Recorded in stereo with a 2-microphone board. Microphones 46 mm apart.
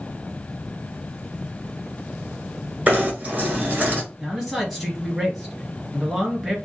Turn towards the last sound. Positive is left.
turn(degrees=-10)  # may be behind; listen again after turning